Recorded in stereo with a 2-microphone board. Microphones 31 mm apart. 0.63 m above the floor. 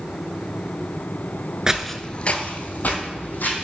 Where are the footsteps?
25° right (ahead or behind), 0.6 m; by 3.6 s 70° left (ahead or behind), 2.5 m.